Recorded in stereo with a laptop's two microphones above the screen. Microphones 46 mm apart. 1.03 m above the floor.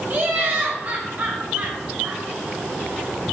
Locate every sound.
0.1 s laughter: 50° right (ahead or behind), 1.0 m